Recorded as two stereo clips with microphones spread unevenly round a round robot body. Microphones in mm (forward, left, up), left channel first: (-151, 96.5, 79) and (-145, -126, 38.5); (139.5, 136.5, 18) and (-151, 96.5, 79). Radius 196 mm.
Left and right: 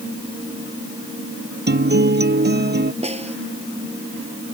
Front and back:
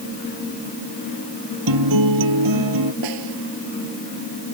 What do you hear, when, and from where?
1.7 s a guitar: 130° right
3.0 s a snare drum: 150° right